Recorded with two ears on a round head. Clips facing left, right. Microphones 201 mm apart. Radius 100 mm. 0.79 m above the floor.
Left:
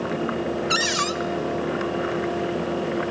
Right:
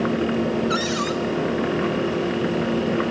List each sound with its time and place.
0.7 s a cupboard door: 35° left (ahead or behind), 0.8 m